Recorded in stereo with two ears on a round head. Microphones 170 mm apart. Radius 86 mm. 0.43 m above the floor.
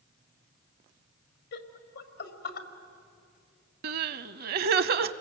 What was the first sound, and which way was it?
Laughter, 60° left (ahead or behind).